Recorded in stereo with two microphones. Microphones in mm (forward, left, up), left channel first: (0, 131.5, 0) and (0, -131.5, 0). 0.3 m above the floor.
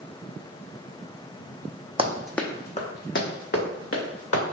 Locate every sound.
2.0 s running footsteps: 20° right (ahead or behind), 0.6 m; by 4.4 s 65° left (ahead or behind), 1.7 m